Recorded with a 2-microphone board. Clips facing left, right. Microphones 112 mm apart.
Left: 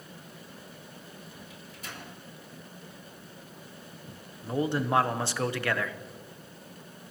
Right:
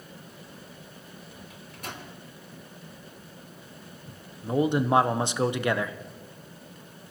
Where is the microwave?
55° right (ahead or behind), 3 m.